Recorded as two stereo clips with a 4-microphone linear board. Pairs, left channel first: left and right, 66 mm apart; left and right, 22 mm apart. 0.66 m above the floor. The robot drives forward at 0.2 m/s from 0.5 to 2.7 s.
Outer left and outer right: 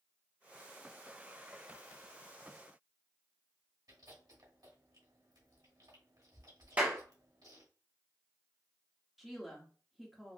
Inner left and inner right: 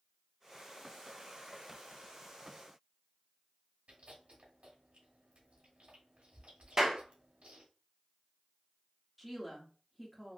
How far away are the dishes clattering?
I don't hear dishes clattering.